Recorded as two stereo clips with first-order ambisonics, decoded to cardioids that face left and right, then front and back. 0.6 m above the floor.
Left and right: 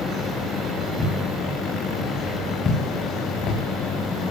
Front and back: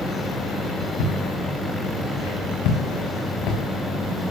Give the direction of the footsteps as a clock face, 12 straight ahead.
12 o'clock.